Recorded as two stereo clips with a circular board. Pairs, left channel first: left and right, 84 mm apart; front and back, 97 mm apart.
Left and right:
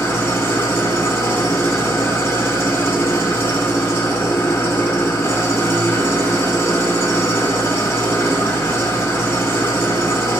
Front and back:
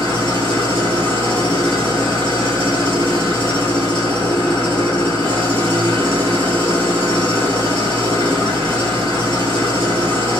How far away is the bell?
No bell in this recording.